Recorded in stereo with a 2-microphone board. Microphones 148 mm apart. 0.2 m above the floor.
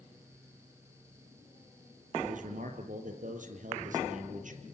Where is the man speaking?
60° right (ahead or behind), 5 m.